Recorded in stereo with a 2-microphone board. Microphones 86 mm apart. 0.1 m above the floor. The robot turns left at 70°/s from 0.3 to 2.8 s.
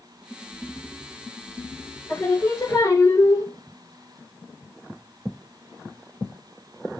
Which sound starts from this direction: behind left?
Singing, at 2.1 s.